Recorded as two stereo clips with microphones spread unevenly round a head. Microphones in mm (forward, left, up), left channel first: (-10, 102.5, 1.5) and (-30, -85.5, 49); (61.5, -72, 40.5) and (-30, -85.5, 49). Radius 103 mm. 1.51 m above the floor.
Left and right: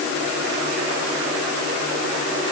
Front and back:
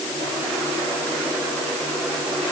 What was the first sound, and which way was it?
Only background noise.